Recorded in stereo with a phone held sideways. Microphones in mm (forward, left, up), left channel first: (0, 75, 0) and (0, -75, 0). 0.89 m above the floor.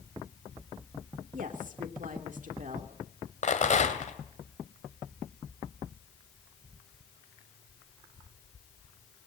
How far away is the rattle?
About 2 m.